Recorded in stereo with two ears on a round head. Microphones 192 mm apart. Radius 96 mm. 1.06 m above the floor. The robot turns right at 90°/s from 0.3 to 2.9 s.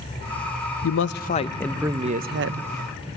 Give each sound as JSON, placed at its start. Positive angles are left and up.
{"t": 0.8, "sound": "a man speaking", "azimuth_deg": 100, "distance_m": 0.6}